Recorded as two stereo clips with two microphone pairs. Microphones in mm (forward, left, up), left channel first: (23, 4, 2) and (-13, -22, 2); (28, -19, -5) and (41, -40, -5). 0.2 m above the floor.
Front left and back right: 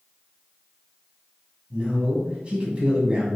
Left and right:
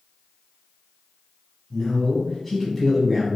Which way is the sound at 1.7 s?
175° right.